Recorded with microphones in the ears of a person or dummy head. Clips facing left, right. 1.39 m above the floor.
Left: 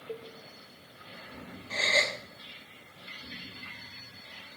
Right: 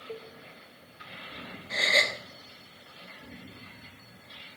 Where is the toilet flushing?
No toilet flushing in this recording.